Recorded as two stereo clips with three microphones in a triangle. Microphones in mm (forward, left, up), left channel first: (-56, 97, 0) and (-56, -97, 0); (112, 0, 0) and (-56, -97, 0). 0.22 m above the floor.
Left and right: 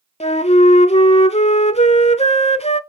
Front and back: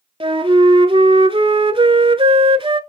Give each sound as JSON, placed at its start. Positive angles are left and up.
{"t": 0.2, "sound": "a flute", "azimuth_deg": 150, "distance_m": 0.5}